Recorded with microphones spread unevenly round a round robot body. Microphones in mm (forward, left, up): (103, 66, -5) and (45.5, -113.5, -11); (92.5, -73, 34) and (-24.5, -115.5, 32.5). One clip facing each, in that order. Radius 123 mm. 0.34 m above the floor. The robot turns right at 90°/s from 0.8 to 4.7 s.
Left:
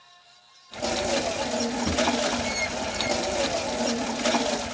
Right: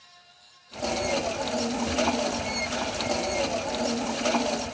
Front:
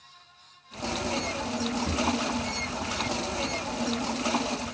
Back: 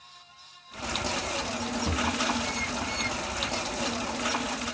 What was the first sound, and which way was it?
A drawer, 120° left.